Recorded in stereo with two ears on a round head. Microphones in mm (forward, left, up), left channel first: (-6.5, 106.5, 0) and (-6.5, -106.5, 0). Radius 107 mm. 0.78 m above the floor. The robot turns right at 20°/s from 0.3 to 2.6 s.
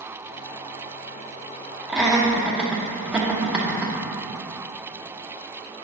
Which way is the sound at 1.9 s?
Centre (ahead or behind).